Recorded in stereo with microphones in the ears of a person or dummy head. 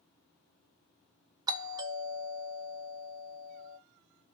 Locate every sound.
1.5 s a doorbell: 15° right (ahead or behind), 0.9 m